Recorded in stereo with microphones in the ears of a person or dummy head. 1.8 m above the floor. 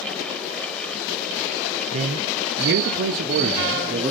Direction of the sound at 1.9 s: 40° right (ahead or behind).